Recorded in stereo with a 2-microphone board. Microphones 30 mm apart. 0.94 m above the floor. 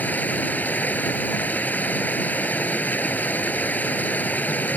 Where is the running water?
60° left (ahead or behind).